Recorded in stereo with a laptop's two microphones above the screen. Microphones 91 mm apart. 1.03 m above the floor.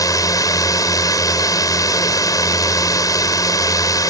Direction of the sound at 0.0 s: 40° left (ahead or behind).